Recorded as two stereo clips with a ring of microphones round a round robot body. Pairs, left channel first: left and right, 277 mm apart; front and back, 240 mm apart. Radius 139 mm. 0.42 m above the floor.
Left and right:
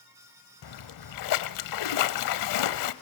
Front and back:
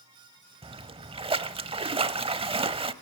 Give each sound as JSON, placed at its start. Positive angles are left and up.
{"t": 0.6, "sound": "a splash", "azimuth_deg": 110, "distance_m": 0.8}